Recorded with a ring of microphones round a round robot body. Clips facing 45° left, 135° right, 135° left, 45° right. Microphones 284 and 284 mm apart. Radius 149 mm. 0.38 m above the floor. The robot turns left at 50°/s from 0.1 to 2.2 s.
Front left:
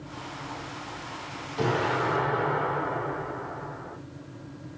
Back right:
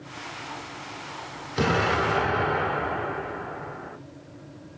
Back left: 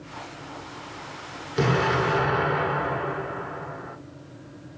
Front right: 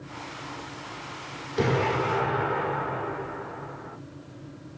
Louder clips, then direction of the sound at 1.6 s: Back right 2 dB, back left 1 dB; 150° right.